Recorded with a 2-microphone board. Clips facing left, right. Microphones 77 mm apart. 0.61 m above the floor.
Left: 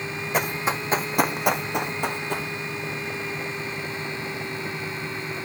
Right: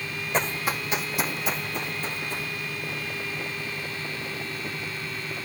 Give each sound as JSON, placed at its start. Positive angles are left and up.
{"t": 0.3, "sound": "running footsteps", "side_deg": 5, "distance_m": 1.4}